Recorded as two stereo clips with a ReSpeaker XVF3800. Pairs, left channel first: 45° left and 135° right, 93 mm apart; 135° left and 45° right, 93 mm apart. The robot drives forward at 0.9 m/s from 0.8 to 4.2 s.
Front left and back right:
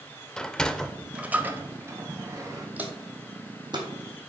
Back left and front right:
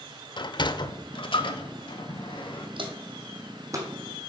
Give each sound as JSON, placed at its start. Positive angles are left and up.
{"t": 0.4, "sound": "a sliding door", "azimuth_deg": 125, "distance_m": 0.5}
{"t": 2.8, "sound": "footsteps", "azimuth_deg": -60, "distance_m": 1.6}